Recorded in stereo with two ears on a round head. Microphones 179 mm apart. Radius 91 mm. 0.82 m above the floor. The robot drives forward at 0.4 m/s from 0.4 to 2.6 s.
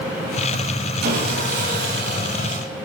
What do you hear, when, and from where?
1.0 s sawing: 50° right (ahead or behind), 4.5 m; by 2.6 s 55° right (ahead or behind), 4 m